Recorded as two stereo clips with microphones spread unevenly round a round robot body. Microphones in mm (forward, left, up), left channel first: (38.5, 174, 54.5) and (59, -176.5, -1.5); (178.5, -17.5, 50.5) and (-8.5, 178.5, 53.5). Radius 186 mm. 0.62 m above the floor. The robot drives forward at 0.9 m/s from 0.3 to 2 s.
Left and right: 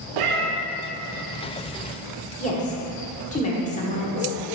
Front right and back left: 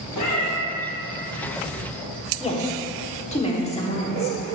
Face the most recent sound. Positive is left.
turn(degrees=20)